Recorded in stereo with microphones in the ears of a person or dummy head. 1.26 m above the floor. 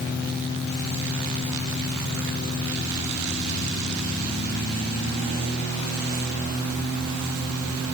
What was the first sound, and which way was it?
Only background noise.